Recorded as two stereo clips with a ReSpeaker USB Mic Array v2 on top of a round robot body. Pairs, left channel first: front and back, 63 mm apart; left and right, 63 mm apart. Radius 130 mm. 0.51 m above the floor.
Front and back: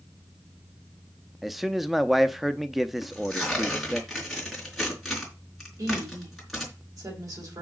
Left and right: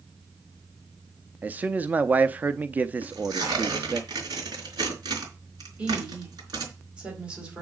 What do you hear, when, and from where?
1.4 s a man speaking: 95° right, 0.8 m
3.0 s tearing paper: 90° right, 4.5 m
5.8 s a woman speaking: 160° right, 4.5 m